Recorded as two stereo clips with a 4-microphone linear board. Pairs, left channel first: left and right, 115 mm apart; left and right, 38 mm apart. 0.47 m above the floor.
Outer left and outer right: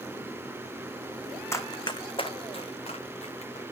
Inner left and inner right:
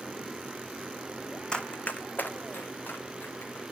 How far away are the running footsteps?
About 1.3 m.